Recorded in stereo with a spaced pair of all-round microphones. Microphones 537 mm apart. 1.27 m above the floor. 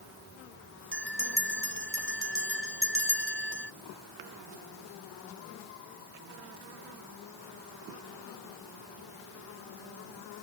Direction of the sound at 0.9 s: 25° right (ahead or behind).